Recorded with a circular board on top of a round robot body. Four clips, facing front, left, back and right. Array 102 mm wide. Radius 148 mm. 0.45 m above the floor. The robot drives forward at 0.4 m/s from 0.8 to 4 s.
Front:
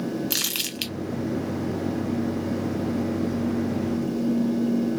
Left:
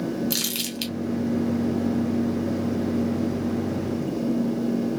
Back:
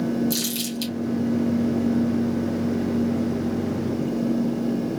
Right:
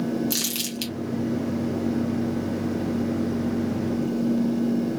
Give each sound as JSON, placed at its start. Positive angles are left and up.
{"t": 0.3, "sound": "crumpling", "azimuth_deg": -5, "distance_m": 2.0}